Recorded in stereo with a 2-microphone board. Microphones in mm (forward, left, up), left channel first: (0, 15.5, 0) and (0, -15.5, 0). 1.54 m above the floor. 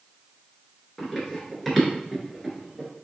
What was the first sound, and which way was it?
Running footsteps, 10° left (ahead or behind).